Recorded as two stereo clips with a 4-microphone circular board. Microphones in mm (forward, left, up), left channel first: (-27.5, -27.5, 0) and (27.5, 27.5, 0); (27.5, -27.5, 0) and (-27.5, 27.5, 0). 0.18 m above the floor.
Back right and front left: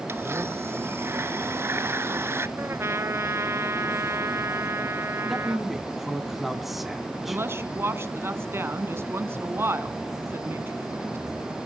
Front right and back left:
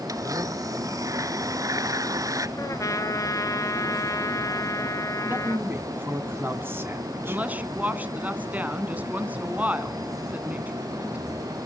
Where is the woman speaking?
80° left, 1.6 m.